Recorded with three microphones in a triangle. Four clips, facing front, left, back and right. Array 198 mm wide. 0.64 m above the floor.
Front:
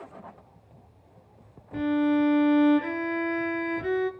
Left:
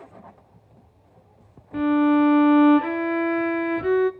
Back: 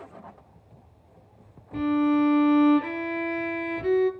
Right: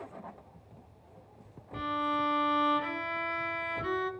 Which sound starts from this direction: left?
A violin, at 1.7 s.